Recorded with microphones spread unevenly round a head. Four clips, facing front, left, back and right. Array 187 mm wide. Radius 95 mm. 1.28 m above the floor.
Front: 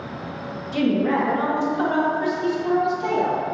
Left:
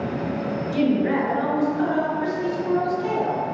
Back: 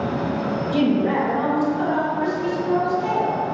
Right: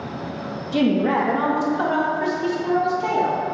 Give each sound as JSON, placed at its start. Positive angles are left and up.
{"t": 0.7, "sound": "a woman speaking", "azimuth_deg": -105, "distance_m": 1.5}